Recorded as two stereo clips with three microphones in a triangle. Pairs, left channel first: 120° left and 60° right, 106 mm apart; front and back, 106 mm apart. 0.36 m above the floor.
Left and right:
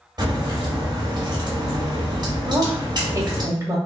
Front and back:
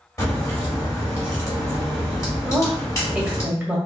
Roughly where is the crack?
Ahead right.